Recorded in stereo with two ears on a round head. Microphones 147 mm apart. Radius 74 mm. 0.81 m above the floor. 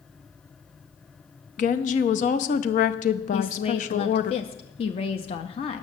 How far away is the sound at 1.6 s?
About 0.7 m.